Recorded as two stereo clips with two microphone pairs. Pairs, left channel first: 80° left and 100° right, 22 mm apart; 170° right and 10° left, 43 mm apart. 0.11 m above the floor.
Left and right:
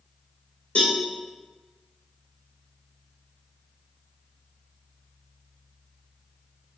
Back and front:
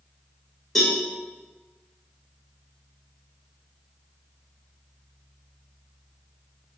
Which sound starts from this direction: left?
A cowbell, at 0.8 s.